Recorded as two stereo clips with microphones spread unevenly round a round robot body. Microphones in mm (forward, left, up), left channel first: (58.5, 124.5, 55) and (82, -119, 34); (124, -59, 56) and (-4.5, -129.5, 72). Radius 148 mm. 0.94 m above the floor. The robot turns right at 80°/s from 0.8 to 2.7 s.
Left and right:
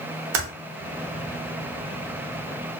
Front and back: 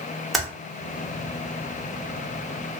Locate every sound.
0.3 s typing on a keyboard: 65° right, 0.8 m